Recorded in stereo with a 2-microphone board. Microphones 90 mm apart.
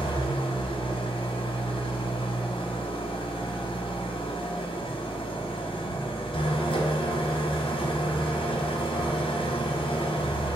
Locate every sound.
0.0 s an engine running: 75° left (ahead or behind), 2.0 m